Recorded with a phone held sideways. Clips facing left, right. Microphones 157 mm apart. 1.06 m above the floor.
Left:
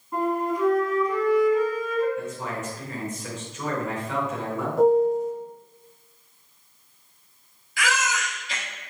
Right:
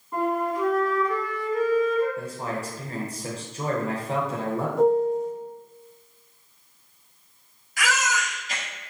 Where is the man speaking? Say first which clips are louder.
Even; 35° right (ahead or behind), 0.7 m.